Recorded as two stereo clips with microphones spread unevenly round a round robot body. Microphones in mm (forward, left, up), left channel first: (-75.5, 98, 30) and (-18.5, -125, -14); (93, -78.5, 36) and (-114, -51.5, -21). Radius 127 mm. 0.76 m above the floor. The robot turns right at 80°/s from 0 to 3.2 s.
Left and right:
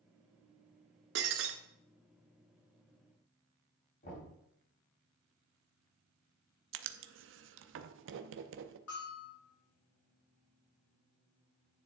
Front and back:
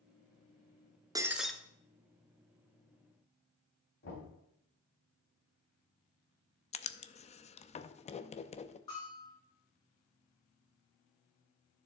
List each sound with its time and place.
1.1 s breaking glass: 105° right, 0.9 m; by 1.5 s 75° right, 0.9 m
4.0 s knocking: 45° left, 4 m
6.7 s writing: 75° right, 0.6 m
8.9 s a bell: 65° left, 5.5 m